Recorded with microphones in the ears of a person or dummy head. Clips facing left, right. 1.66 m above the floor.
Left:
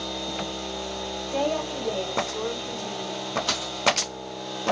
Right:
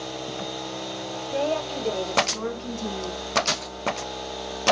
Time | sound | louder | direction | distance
1.3 | a woman speaking | right 1 dB | 25° right (ahead or behind) | 1.5 m
3.5 | a dropped coin | even | 20° right (ahead or behind) | 1.4 m